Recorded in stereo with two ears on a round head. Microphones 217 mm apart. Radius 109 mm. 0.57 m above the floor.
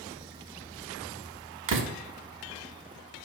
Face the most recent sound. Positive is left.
turn(degrees=-50)  # may be behind; listen again after turning